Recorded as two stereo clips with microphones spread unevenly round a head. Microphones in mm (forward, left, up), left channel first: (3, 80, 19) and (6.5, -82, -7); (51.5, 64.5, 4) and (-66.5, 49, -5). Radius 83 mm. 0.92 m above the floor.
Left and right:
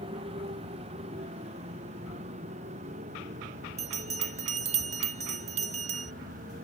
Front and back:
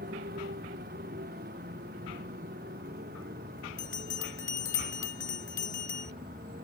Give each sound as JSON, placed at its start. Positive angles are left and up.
{"t": 0.0, "sound": "a motorcycle", "azimuth_deg": -150}
{"t": 3.8, "sound": "a bell", "azimuth_deg": -40}